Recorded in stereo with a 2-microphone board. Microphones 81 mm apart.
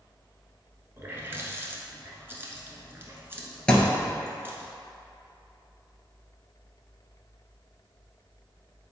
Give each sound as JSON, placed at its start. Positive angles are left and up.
{"t": 1.0, "sound": "a running tap", "side_deg": -30, "distance_m": 1.0}
{"t": 3.7, "sound": "a thud", "side_deg": 10, "distance_m": 1.1}